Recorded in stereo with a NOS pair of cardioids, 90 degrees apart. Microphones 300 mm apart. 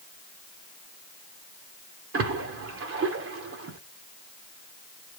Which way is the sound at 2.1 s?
45° right.